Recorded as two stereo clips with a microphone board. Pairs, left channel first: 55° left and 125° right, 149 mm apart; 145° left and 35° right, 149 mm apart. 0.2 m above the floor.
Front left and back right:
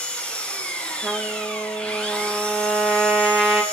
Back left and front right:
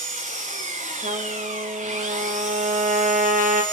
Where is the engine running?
25° right, 2 m.